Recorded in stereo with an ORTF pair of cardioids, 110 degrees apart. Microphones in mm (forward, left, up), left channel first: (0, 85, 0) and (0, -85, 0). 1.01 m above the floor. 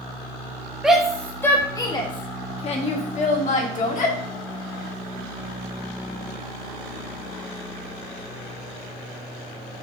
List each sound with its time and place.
0.8 s a shout: 5° right, 1.0 m; by 4.2 s 50° left, 2 m